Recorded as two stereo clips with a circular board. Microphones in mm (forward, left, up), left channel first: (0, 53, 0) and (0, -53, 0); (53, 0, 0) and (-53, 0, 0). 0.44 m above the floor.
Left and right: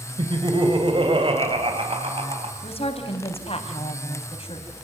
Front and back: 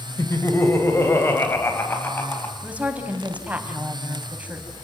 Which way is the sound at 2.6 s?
105° left.